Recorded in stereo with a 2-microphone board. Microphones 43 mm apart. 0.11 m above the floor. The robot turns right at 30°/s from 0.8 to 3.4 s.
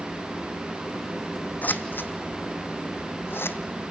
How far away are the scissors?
About 0.9 m.